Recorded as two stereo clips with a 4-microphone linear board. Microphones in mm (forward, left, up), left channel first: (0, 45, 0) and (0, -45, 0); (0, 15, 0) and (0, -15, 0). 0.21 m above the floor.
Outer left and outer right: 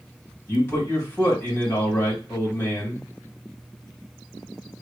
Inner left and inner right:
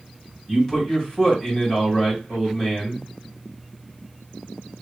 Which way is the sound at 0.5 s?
20° left (ahead or behind).